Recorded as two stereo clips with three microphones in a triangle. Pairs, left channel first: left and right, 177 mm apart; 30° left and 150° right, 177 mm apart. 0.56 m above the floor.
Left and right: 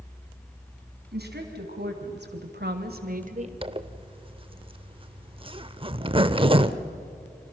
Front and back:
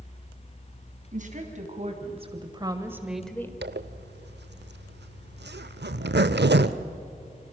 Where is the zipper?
150° right, 0.8 m.